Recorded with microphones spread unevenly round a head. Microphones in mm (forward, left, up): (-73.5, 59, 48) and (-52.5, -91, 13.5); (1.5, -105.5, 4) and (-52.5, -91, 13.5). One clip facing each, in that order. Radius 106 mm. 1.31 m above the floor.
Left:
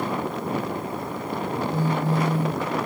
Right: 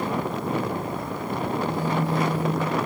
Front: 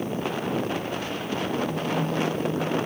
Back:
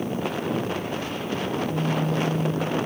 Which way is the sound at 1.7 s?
85° left.